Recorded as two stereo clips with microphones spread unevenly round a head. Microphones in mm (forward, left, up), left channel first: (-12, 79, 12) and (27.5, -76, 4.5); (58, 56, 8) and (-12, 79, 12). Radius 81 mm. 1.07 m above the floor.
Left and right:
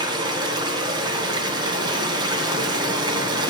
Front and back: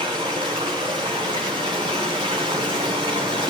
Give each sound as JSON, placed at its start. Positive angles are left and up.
{"t": 0.0, "sound": "running water", "azimuth_deg": -145, "distance_m": 2.5}